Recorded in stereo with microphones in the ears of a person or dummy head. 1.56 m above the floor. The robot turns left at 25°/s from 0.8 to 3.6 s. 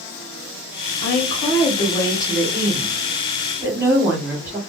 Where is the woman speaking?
50° left, 1.1 m; by 4.6 s 15° right, 1.1 m.